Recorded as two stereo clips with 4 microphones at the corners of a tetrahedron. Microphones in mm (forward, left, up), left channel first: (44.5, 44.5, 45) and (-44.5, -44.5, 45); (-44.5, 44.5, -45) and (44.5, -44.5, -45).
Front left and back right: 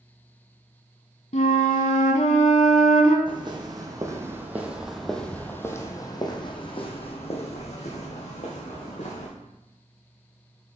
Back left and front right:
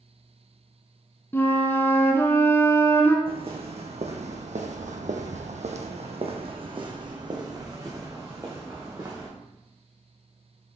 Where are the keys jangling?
No keys jangling in this recording.